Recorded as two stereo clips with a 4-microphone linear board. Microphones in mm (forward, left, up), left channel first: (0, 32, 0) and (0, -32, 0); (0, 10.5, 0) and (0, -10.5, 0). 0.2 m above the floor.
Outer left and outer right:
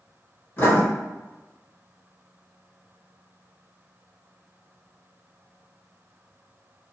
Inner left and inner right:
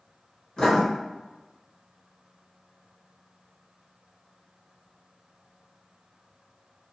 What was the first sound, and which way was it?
Writing, 35° left (ahead or behind).